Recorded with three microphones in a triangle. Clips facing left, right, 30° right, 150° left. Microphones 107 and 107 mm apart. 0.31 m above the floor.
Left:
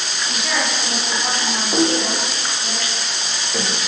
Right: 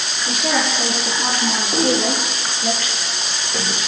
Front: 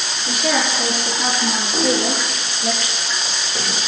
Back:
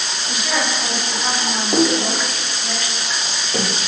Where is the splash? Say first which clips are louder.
Left 1 dB, back 3 dB; 175° left, 3 m.